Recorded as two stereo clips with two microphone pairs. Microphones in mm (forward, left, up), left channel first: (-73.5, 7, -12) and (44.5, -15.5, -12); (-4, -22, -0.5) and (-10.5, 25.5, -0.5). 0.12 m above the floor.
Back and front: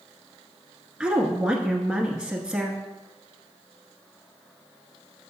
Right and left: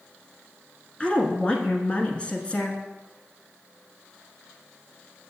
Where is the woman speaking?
85° right, 1.1 m.